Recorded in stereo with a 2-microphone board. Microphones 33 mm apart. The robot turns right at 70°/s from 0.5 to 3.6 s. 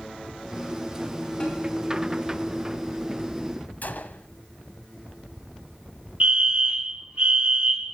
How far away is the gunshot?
About 0.8 m.